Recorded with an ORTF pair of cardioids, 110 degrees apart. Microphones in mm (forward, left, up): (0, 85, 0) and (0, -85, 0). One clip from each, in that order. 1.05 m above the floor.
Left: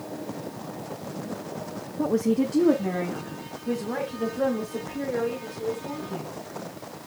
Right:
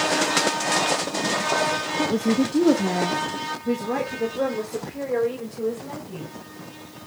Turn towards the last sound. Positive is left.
turn(degrees=-40)